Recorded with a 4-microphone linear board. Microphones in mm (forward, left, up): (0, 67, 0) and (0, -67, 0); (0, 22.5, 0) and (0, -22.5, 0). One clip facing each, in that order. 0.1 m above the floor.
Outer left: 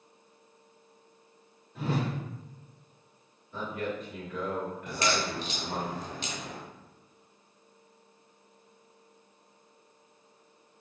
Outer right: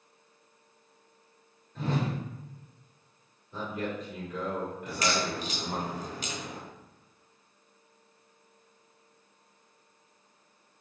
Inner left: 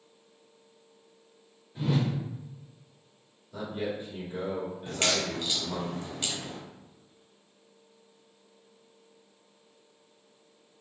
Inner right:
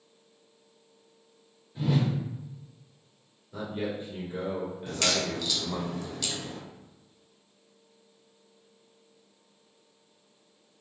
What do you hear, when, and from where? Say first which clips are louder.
1.8 s a whoosh: even, inner right 1 dB; 10° left (ahead or behind), 1.8 m
3.5 s a man speaking: even, even; 20° right (ahead or behind), 1.8 m
4.9 s a crack: even, even; 30° left (ahead or behind), 1.1 m